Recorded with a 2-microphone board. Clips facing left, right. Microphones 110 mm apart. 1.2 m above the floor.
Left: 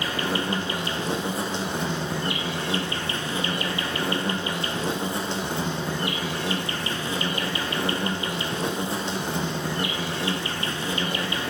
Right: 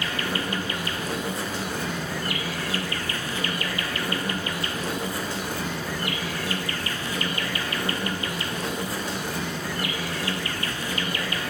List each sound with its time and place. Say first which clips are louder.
0.0 s an insect: left 2 dB; 25° left (ahead or behind), 0.9 m